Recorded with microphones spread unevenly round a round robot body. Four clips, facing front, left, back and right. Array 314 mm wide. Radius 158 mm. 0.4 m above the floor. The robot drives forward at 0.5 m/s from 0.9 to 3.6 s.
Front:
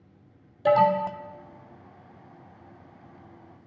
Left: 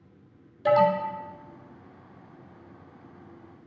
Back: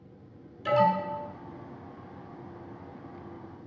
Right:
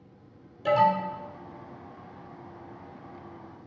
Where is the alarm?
Straight ahead, 1.4 m; by 1.2 s 5° left, 1.3 m.